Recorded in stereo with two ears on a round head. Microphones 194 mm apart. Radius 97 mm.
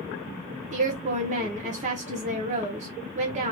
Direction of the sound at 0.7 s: 35° right (ahead or behind).